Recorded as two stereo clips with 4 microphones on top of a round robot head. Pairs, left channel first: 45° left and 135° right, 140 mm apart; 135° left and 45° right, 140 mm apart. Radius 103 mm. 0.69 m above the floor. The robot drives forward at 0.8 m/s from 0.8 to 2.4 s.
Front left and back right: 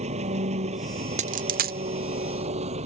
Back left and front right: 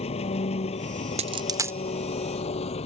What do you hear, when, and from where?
0.0 s an engine running: straight behind
1.2 s a dropped coin: 90° right; by 1.8 s 125° right